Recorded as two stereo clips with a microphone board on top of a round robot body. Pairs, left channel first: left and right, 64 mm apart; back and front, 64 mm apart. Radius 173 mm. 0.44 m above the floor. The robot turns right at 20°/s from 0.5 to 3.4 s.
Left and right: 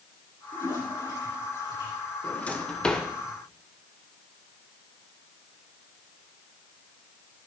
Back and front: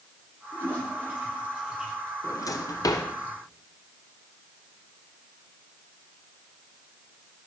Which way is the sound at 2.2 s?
155° left.